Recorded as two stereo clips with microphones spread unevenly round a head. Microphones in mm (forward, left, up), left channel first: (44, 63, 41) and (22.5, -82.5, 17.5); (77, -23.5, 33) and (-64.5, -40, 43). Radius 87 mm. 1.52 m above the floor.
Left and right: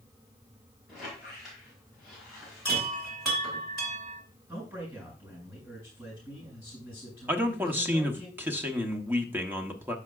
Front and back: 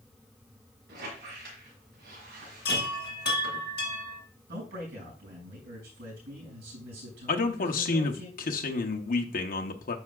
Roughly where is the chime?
Ahead.